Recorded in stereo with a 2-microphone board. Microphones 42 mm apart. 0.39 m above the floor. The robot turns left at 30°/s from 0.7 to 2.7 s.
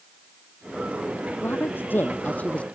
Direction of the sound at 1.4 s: 65° left.